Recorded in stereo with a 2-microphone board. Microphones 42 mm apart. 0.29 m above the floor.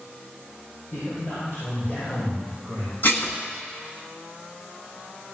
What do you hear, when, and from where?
0.9 s a man speaking: 75° left (ahead or behind), 6 m
3.0 s dishes clattering: 55° left (ahead or behind), 1.5 m